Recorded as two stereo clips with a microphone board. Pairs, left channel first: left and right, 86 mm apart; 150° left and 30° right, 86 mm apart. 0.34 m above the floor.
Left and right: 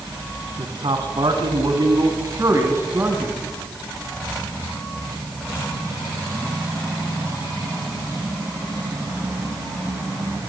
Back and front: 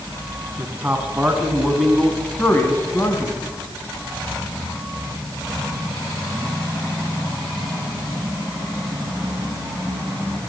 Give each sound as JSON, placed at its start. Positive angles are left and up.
{"t": 0.6, "sound": "a man speaking", "azimuth_deg": -95, "distance_m": 4.0}